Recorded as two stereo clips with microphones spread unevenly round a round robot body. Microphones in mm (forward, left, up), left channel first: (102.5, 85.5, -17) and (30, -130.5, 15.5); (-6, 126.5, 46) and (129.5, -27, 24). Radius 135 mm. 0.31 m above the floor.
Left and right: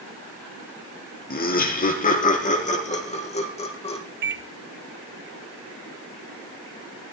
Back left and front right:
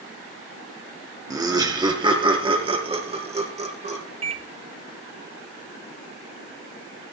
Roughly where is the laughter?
Ahead left.